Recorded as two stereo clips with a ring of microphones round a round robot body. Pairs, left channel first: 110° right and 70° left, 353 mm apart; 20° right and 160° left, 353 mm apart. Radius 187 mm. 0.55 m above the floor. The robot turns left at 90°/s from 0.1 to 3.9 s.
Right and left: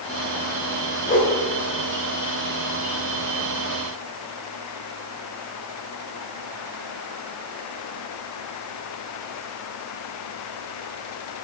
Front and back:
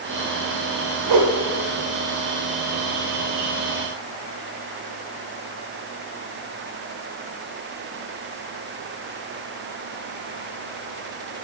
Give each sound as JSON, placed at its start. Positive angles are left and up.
{"t": 1.1, "sound": "a whoosh", "azimuth_deg": -165, "distance_m": 1.4}